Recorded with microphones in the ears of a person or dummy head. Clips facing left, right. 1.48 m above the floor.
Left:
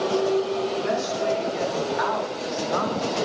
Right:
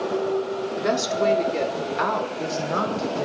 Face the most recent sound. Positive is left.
turn(degrees=-25)  # may be behind; listen again after turning